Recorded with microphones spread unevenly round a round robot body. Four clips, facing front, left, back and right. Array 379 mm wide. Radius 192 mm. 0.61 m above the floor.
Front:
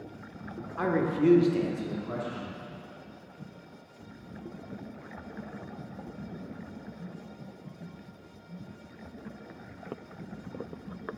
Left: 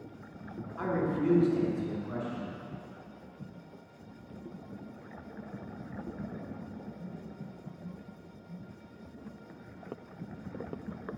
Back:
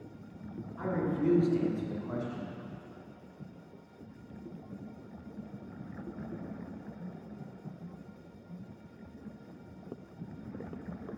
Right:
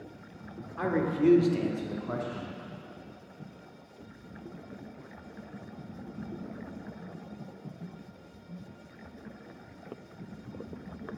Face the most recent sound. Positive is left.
turn(degrees=-115)